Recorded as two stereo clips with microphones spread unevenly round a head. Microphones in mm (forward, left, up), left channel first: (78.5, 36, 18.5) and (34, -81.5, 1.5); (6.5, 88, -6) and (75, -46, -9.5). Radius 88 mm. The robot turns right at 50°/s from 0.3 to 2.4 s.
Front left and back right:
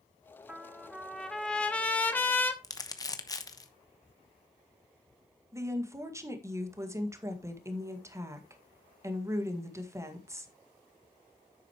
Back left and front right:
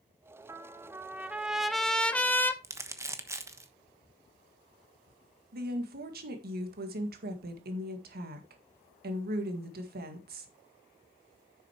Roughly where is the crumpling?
Ahead.